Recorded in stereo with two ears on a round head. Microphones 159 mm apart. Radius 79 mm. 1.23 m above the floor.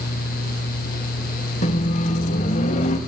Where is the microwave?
40° left (ahead or behind), 1.6 m.